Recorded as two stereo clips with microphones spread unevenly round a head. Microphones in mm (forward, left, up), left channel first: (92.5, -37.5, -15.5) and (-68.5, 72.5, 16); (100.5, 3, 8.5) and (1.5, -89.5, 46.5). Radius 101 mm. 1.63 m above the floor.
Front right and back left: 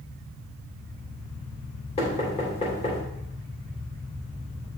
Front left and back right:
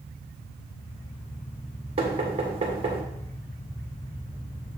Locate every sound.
2.0 s knocking: 100° right, 1.9 m